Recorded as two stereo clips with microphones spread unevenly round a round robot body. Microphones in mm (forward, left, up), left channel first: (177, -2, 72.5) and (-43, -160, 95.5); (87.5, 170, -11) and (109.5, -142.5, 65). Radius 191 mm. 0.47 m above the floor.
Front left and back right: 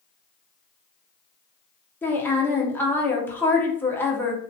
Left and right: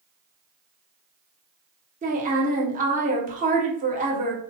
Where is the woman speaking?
25° right, 0.8 m.